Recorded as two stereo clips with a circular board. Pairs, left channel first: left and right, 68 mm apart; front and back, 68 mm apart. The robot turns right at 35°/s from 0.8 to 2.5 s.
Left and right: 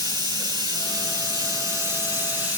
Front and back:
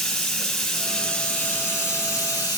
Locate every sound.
0.0 s running water: 85° right, 3.5 m; by 2.6 s 30° right, 3.5 m